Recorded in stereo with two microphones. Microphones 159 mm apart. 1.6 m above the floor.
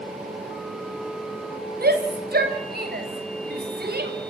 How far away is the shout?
About 6 m.